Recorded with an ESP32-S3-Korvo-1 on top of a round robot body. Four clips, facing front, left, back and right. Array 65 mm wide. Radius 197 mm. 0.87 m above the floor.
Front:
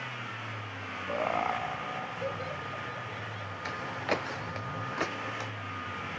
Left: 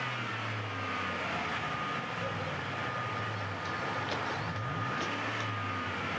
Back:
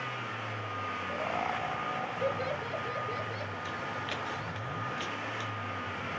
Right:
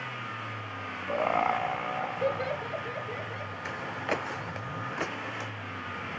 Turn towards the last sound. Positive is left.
turn(degrees=-40)